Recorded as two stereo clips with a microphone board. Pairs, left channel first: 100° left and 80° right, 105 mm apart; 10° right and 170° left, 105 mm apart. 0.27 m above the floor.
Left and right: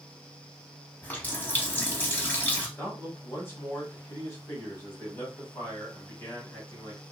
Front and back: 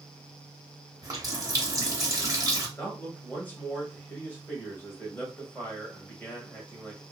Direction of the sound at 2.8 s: 50° left.